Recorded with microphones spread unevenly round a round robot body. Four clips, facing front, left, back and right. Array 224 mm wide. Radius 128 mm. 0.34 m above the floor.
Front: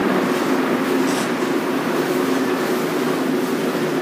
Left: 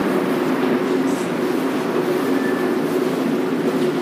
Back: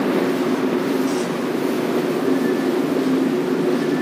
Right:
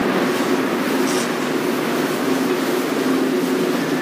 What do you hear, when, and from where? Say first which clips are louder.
1.1 s tape being pulled: even, front 1 dB; 15° right, 7 m